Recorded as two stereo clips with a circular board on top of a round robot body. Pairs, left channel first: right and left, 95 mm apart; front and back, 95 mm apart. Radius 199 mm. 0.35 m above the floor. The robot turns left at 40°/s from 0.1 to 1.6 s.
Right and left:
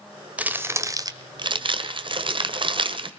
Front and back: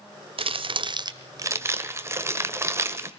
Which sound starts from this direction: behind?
Crumpling, at 0.4 s.